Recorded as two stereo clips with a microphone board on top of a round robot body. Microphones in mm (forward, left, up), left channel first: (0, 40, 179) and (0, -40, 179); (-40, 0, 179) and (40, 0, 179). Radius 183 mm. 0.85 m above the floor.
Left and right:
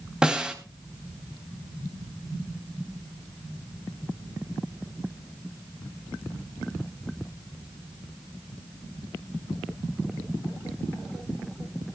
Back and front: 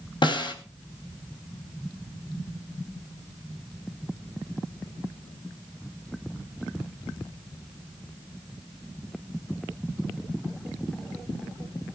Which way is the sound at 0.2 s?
170° right.